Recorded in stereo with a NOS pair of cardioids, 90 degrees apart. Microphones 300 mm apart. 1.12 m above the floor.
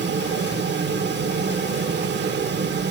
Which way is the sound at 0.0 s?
35° right.